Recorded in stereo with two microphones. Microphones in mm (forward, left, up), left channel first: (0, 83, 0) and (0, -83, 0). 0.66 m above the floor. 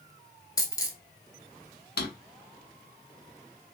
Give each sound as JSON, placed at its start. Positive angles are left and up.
{"t": 0.6, "sound": "a dropped coin", "side_deg": 25, "distance_m": 0.8}
{"t": 2.0, "sound": "a drawer", "side_deg": 80, "distance_m": 0.7}